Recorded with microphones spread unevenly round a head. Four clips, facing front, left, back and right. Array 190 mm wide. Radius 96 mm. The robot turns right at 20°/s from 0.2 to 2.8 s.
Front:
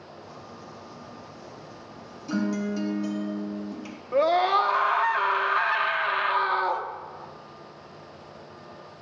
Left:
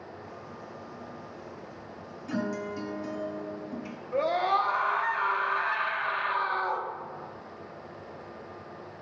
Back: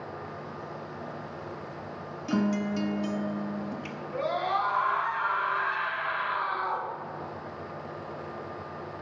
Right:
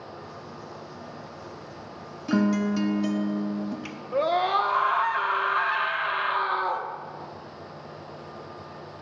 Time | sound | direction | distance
2.3 | a guitar | 105° right | 1.1 m
4.1 | a scream | 25° right | 1.3 m